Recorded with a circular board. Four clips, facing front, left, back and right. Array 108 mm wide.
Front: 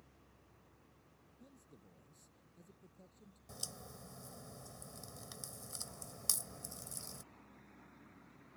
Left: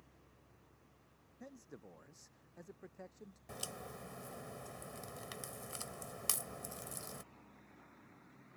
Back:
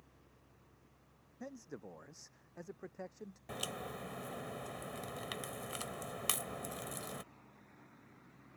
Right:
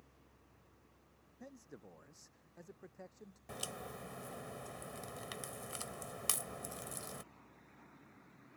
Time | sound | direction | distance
1.4 | a man speaking | straight behind | ?
3.5 | a crack | 165° right | ?